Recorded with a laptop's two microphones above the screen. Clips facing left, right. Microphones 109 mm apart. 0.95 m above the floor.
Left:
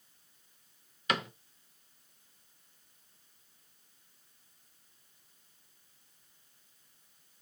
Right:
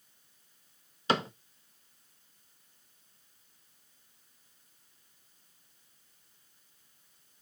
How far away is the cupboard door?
About 0.7 m.